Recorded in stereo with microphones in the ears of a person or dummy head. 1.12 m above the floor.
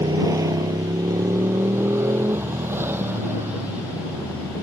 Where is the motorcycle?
20° right (ahead or behind); by 4.6 s 10° right (ahead or behind).